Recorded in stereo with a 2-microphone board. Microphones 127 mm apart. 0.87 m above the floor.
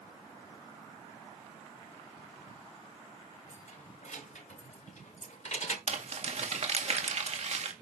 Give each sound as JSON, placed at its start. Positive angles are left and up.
{"t": 3.5, "sound": "keys jangling", "side_deg": 85, "distance_m": 3.0}
{"t": 5.9, "sound": "crumpling", "side_deg": -60, "distance_m": 1.9}